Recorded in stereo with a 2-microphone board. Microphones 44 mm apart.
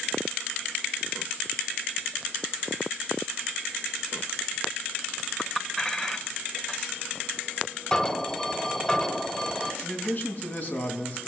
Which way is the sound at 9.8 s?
40° left (ahead or behind).